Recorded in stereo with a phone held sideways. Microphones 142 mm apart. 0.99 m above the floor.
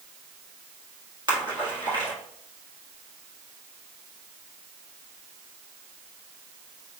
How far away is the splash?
About 1.6 m.